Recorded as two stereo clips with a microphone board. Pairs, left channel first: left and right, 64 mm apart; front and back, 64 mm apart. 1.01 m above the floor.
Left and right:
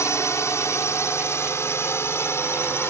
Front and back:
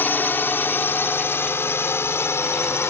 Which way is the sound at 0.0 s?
55° left.